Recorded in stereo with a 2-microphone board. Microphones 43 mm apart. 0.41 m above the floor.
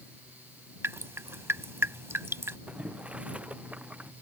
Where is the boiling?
30° right (ahead or behind).